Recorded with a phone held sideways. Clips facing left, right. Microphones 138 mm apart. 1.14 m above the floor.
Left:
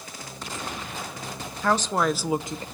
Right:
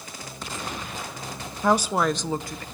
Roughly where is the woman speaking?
Centre.